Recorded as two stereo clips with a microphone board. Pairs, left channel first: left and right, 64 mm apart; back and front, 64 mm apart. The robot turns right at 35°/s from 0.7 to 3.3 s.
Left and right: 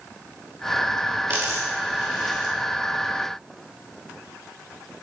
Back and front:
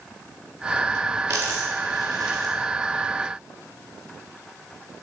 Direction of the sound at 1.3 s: 45° right.